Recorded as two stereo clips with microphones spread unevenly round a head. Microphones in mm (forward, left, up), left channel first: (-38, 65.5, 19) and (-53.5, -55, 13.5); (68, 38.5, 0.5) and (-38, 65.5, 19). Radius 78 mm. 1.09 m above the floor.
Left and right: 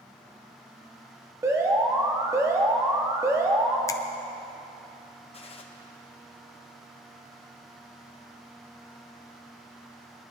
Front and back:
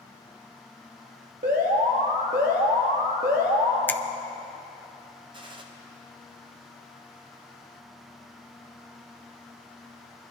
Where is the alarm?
165° right, 1.8 m.